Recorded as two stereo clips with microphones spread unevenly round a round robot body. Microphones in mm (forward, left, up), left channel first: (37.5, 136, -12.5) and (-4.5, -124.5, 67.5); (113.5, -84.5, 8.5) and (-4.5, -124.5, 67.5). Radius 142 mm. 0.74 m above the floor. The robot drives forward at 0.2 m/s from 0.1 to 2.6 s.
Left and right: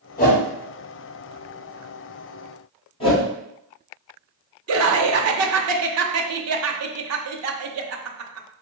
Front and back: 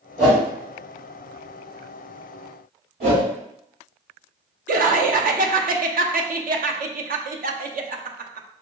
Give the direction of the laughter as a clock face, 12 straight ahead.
5 o'clock.